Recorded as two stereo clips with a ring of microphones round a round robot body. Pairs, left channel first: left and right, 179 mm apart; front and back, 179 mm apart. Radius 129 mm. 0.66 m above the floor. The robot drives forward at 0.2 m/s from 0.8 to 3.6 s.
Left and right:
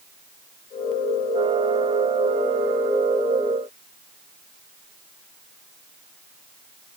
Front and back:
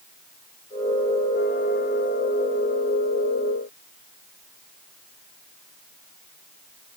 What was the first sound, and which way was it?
Only background noise.